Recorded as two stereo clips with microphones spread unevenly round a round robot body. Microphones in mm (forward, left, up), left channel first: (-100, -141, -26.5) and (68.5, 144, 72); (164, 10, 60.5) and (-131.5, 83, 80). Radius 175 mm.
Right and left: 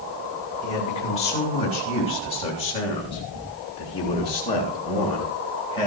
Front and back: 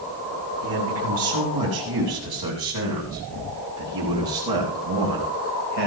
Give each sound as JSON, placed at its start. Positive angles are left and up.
{"t": 0.6, "sound": "a man speaking", "azimuth_deg": 170, "distance_m": 6.5}